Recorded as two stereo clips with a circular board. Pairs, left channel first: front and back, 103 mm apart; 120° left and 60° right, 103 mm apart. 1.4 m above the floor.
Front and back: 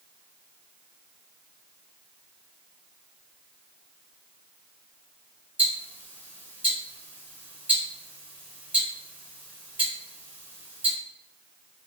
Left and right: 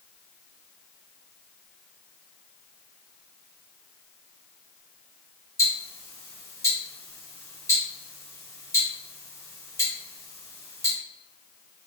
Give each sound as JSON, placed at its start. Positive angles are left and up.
{"t": 5.6, "sound": "ticking", "azimuth_deg": 125, "distance_m": 1.3}